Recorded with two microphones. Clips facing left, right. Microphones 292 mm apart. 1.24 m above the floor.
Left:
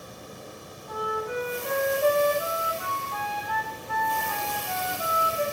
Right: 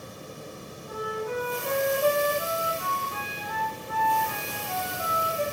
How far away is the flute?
About 5.5 m.